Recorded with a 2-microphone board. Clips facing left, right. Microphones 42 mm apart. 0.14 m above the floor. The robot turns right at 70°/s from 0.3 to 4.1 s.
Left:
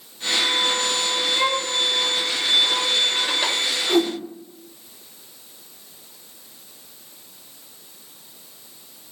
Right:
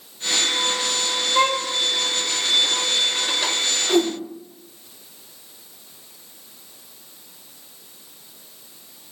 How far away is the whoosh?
About 1.4 m.